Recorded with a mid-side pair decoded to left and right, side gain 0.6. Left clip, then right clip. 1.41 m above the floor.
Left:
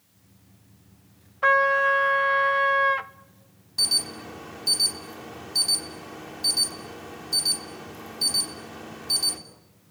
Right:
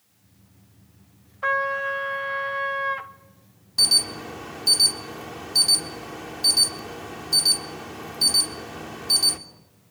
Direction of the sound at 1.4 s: 25° left.